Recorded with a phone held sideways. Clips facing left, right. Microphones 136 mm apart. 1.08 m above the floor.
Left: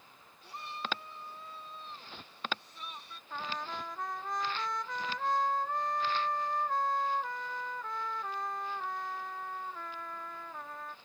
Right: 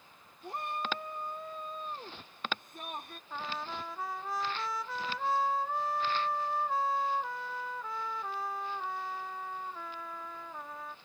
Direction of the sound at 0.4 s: 50° right (ahead or behind).